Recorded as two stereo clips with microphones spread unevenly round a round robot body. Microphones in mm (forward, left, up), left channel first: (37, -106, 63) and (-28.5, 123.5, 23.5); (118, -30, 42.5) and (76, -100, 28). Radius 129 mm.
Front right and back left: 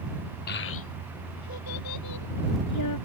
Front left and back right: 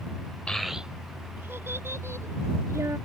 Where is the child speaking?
25° right; by 3.0 s 65° right.